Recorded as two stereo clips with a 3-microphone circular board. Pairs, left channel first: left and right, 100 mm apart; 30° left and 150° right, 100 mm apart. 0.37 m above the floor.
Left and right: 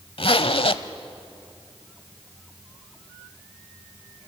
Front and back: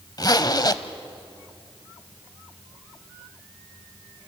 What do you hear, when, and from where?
0.2 s a zipper: 75° left, 0.8 m